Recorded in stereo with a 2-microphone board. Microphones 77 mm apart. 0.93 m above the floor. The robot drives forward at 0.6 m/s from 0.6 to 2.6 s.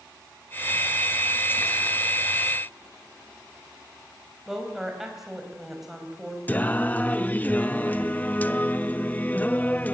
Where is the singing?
20° left (ahead or behind), 0.6 m.